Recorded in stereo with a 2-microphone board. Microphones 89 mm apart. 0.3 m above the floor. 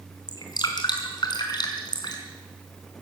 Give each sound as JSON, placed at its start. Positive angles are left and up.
{"t": 0.3, "sound": "dripping", "side_deg": 50, "distance_m": 3.5}